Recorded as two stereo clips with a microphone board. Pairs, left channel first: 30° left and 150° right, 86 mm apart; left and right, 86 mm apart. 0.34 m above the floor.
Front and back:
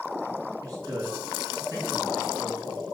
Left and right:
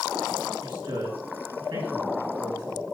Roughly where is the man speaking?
Right.